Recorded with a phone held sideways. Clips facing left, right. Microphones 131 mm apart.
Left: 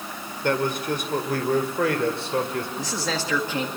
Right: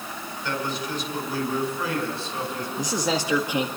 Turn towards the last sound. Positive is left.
turn(degrees=-15)  # may be behind; listen again after turning